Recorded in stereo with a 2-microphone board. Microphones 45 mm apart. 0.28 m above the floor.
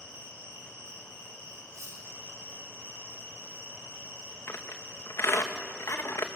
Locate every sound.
0.0 s an insect: 80° right, 9 m
1.7 s cutlery clinking: 80° right, 8.5 m
4.5 s a squeak: 60° left (ahead or behind), 2 m